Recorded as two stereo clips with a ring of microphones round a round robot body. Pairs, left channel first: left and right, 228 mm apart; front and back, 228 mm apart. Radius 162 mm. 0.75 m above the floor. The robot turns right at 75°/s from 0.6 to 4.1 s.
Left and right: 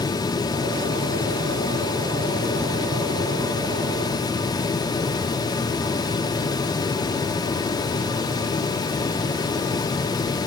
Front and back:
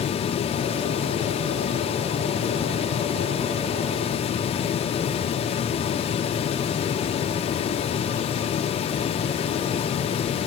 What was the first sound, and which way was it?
Only background noise.